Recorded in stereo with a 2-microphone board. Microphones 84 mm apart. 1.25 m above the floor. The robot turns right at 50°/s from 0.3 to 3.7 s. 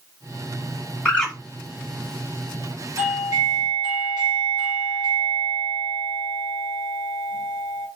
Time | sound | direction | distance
1.1 | a bird | 15° left (ahead or behind) | 1.7 m
3.0 | a doorbell | 150° right | 1.1 m